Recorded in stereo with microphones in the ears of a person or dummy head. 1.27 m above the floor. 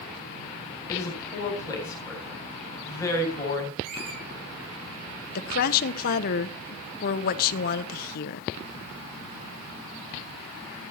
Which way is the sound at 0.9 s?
15° left (ahead or behind).